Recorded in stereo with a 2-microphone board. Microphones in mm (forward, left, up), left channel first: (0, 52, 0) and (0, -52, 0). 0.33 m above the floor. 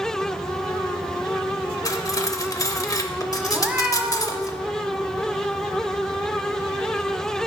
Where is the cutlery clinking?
35° left (ahead or behind), 0.6 m.